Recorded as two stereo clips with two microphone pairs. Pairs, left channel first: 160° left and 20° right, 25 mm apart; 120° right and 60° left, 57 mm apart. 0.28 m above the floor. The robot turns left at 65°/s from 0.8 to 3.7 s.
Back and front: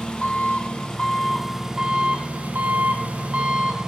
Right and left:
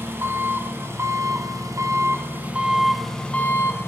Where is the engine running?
110° left, 0.7 m; by 3.9 s 80° right, 0.7 m.